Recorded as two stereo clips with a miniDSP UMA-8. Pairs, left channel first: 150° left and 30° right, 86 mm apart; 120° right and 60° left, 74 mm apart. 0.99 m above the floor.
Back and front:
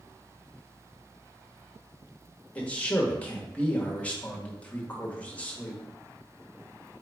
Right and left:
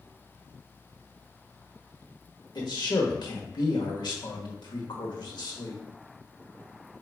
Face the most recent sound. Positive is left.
turn(degrees=-135)